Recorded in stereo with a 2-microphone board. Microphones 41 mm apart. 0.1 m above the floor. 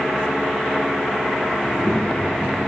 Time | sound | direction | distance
1.6 | a child speaking | 20° left (ahead or behind) | 8 m